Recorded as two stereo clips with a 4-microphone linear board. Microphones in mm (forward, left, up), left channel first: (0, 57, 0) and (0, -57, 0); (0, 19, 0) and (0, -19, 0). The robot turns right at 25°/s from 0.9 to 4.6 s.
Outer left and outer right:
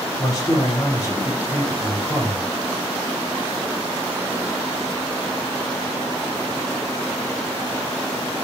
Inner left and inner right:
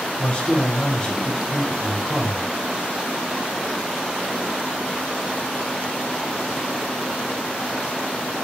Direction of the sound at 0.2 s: 120° left.